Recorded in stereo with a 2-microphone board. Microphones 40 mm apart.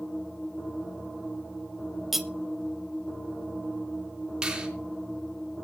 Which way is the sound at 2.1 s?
5° right (ahead or behind).